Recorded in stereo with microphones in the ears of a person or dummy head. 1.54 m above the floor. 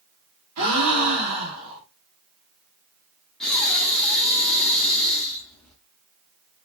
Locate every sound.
0.6 s a gasp: 80° right, 0.8 m
3.4 s breathing: 5° left (ahead or behind), 0.6 m